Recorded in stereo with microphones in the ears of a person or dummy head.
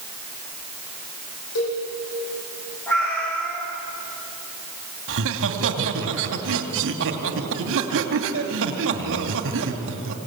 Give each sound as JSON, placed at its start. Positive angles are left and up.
{"t": 1.6, "sound": "a cowbell", "side_deg": 80, "distance_m": 8.5}
{"t": 2.9, "sound": "a cat meowing", "side_deg": 10, "distance_m": 5.5}
{"t": 5.1, "sound": "laughter", "side_deg": -70, "distance_m": 2.5}